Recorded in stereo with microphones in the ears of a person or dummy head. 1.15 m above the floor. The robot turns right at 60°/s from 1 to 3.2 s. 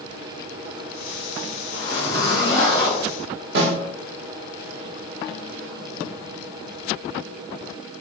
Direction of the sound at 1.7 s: 75° left.